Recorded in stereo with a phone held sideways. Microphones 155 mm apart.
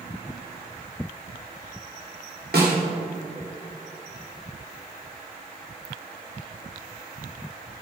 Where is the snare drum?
90° right, 2.5 m.